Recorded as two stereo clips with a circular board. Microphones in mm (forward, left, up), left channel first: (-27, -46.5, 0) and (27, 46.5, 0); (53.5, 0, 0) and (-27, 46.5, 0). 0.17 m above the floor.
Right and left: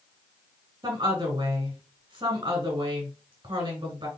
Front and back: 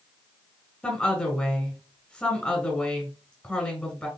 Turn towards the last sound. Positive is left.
turn(degrees=40)